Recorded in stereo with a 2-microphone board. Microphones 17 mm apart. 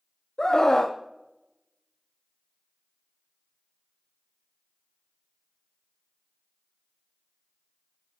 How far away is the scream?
About 0.7 m.